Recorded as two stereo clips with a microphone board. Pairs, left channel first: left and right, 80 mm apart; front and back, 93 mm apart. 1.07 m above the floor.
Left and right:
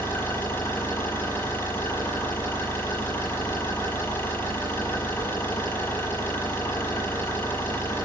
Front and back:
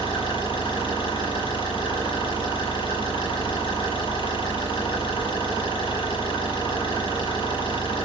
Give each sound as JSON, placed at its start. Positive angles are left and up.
{"t": 0.0, "sound": "an engine running", "azimuth_deg": 25, "distance_m": 8.5}